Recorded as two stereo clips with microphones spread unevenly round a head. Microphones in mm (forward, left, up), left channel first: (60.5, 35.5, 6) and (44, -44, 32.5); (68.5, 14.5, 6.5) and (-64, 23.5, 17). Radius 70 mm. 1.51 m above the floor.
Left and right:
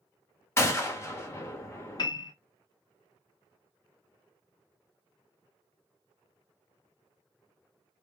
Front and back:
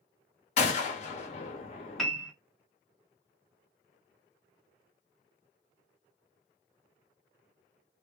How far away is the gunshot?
About 1.0 m.